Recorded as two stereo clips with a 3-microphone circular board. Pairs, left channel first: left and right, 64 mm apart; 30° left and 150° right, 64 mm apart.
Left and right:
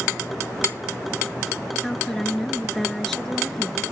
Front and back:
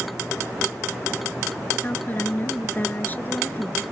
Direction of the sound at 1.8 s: 10° left.